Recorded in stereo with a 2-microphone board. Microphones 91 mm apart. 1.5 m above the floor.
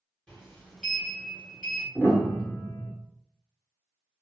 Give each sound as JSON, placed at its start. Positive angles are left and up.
{"t": 0.3, "sound": "a sliding door", "side_deg": 10, "distance_m": 1.5}
{"t": 1.9, "sound": "a piano", "side_deg": 20, "distance_m": 0.9}